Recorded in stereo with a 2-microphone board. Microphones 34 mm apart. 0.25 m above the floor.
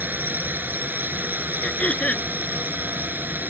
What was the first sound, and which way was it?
A drone, 65° right (ahead or behind).